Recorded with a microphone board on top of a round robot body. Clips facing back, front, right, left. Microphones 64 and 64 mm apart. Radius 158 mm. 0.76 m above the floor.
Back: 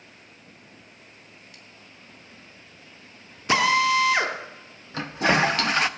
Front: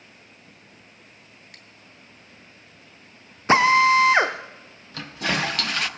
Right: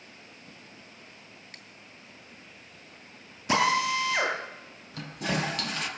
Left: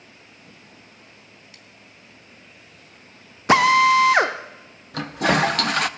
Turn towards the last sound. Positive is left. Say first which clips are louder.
# back 5 dB, left 11 dB
turn(degrees=115)